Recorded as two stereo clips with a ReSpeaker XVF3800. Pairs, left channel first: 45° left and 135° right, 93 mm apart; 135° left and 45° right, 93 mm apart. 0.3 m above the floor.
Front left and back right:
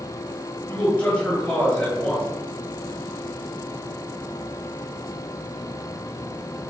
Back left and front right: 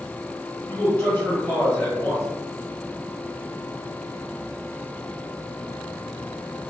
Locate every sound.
0.7 s a man speaking: 105° left, 1.2 m